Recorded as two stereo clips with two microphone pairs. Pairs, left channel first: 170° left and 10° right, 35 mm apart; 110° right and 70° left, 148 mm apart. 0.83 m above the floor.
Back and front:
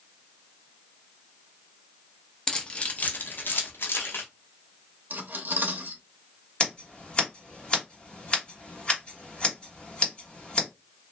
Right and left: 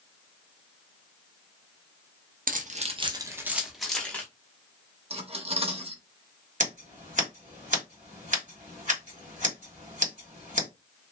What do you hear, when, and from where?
2.5 s keys jangling: 95° left, 0.6 m; by 4.2 s 170° left, 0.9 m
5.1 s cutlery clinking: 20° left, 0.7 m
6.6 s scissors: 110° left, 1.7 m